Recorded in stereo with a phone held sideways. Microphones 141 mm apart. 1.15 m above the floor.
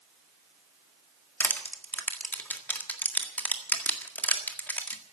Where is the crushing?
10° left (ahead or behind), 1.7 m.